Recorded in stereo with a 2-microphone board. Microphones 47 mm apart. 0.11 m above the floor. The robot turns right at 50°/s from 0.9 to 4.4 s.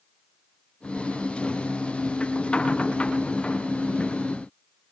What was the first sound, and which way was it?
Only background noise.